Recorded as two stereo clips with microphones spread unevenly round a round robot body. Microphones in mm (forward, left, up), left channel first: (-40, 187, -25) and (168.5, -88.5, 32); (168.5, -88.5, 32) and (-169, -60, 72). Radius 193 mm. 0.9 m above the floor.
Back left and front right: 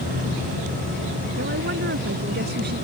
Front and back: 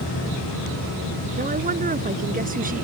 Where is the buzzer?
No buzzer in this recording.